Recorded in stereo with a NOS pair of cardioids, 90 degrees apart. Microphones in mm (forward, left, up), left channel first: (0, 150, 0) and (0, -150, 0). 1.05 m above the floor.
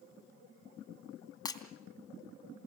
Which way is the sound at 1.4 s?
15° left.